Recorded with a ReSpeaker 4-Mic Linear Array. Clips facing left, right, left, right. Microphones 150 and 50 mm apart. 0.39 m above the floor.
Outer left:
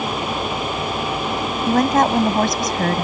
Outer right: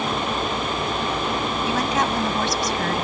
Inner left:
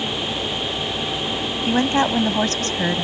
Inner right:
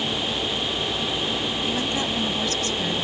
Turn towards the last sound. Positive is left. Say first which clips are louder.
# outer left 9 dB, inner left 12 dB
turn(degrees=50)  # may be behind; listen again after turning